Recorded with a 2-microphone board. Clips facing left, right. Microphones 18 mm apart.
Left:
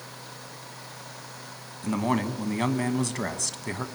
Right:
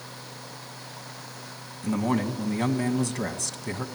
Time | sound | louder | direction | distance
1.8 | a man speaking | even | 15° left (ahead or behind) | 1.5 m